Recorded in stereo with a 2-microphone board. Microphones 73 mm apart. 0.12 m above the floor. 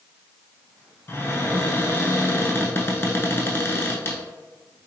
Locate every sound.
1.1 s a cupboard door: 35° left (ahead or behind), 0.6 m